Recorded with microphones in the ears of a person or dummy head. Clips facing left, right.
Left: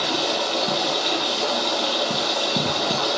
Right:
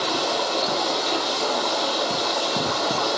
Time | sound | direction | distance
0.0 | running water | 20° left (ahead or behind) | 1.2 m